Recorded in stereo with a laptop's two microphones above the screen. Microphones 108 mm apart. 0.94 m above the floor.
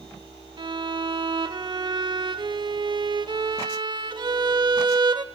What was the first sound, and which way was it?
A violin, 45° right (ahead or behind).